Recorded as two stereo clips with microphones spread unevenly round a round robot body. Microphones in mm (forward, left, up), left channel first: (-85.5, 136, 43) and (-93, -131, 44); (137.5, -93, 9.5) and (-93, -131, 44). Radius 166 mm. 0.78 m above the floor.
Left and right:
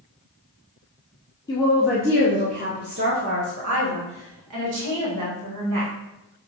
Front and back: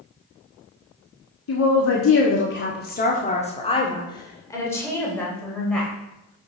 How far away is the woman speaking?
About 1.3 m.